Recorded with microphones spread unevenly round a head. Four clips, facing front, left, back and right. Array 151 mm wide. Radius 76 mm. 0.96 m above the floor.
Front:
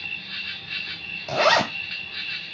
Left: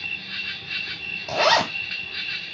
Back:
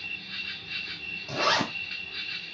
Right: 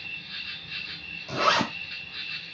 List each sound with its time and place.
0.0 s an insect: 75° left, 0.7 m
1.3 s a zipper: 35° left, 2 m